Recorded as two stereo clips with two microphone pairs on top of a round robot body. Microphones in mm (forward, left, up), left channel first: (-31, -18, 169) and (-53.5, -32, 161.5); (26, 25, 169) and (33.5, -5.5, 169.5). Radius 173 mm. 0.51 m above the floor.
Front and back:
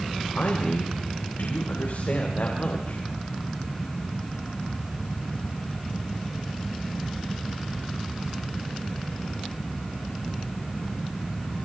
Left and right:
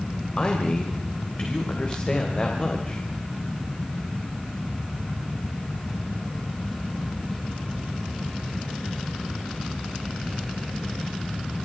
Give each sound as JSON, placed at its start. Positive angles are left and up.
{"t": 0.4, "sound": "a man speaking", "azimuth_deg": 50, "distance_m": 3.0}